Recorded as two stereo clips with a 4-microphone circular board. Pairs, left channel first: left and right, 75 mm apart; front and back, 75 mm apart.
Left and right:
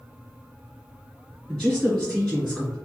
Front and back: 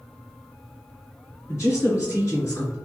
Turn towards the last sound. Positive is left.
turn(degrees=5)